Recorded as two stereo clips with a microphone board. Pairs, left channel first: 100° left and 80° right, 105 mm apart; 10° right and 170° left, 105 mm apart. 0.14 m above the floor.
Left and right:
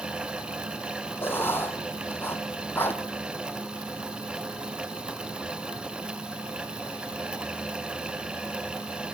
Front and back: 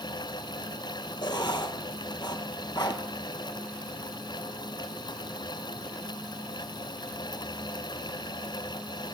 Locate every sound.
1.2 s writing: 30° left, 0.7 m